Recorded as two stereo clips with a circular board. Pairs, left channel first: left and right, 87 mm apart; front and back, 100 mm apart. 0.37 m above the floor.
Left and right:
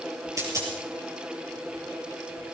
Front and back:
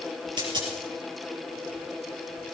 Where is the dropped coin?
140° right, 5 m.